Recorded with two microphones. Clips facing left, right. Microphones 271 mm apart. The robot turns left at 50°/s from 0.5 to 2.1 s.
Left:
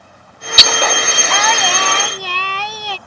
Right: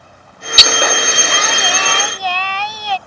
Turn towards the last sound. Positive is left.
turn(degrees=50)